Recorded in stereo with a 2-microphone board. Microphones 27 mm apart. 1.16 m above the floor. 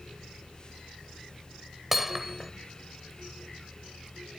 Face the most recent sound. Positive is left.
turn(degrees=-10)  # may be behind; listen again after turning